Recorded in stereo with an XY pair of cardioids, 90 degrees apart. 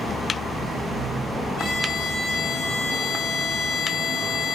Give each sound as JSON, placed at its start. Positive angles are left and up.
{"t": 1.6, "sound": "a violin", "azimuth_deg": 70, "distance_m": 0.7}